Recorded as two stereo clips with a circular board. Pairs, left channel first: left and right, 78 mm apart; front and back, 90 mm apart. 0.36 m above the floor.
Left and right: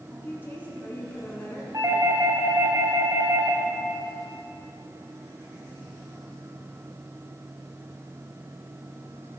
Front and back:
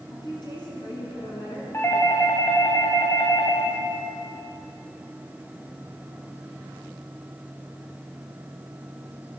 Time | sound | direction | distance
0.1 | a woman speaking | 30° left | 4.5 m
1.7 | a doorbell | 55° right | 2.5 m